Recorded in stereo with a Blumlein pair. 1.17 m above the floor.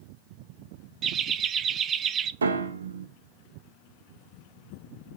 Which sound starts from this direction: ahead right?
Laughter, at 1.0 s.